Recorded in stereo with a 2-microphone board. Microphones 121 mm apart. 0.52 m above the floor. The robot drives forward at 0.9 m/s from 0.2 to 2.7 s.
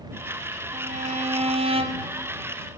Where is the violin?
70° right (ahead or behind), 2.0 m; by 2.1 s 45° right (ahead or behind), 2.5 m.